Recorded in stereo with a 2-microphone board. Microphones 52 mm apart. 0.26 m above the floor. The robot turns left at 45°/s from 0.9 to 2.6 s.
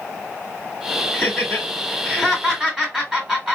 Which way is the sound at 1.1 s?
25° left (ahead or behind).